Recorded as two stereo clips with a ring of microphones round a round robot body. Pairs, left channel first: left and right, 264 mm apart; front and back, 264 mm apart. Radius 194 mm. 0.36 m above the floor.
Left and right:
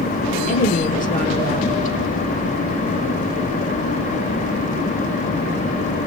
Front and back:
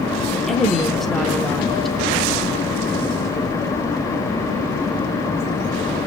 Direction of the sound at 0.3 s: 90° left.